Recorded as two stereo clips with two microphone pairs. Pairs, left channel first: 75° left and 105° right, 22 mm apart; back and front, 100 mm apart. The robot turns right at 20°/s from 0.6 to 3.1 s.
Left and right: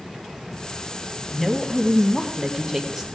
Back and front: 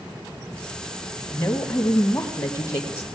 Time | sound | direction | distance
1.3 | a woman speaking | 130° left | 1.1 m